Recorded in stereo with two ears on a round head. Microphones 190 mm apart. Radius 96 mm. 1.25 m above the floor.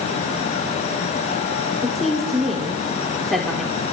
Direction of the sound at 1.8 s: Centre (ahead or behind).